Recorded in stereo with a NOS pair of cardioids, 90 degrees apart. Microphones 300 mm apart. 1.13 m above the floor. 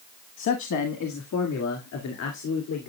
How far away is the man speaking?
About 1.6 m.